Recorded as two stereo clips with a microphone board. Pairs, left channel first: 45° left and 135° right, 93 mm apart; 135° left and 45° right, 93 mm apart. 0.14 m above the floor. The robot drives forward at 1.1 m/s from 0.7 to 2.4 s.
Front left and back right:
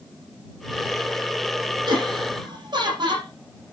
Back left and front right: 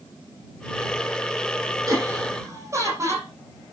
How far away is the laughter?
About 7.5 m.